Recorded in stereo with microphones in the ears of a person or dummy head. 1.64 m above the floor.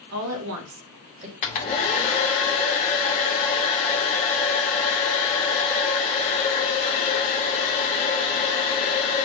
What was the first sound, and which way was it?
A woman speaking, 75° right (ahead or behind).